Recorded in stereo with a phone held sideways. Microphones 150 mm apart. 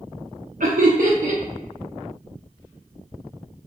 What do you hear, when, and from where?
0.6 s laughter: 80° right, 0.5 m